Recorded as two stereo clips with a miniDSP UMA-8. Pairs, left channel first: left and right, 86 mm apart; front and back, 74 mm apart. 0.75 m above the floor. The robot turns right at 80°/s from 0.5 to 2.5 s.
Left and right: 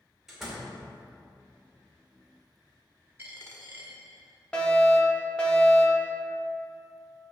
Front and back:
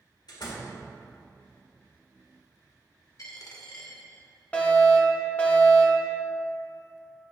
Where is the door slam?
5° right, 1.9 m; by 0.7 s 15° left, 1.9 m.